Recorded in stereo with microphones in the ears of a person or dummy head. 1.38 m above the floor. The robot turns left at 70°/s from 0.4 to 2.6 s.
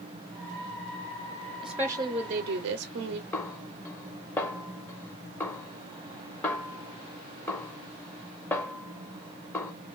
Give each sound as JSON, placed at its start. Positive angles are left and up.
{"t": 1.6, "sound": "a woman speaking", "azimuth_deg": 0, "distance_m": 0.6}
{"t": 3.3, "sound": "a snare drum", "side_deg": 15, "distance_m": 0.6}